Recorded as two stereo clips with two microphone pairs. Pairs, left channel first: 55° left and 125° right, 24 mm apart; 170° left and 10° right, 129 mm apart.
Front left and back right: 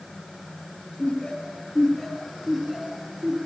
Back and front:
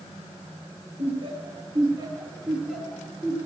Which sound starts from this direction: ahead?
Laughter, at 1.0 s.